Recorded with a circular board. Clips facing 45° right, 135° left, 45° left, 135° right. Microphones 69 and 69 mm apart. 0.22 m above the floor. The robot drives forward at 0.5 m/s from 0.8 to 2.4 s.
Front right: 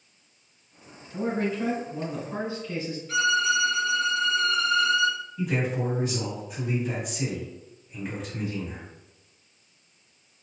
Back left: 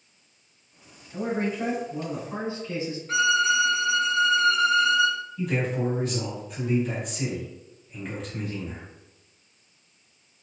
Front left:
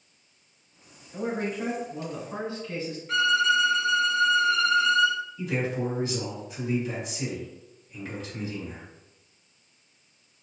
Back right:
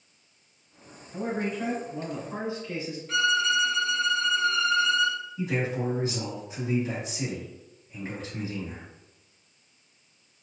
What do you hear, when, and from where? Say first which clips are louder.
1.1 s a man speaking: even, even; 140° left, 1.5 m; by 3.0 s 160° left, 1.8 m
3.1 s a violin: back left 1 dB, front left 2 dB; 130° left, 1.1 m
5.4 s a man speaking: back left 1 dB, even; 125° right, 1.4 m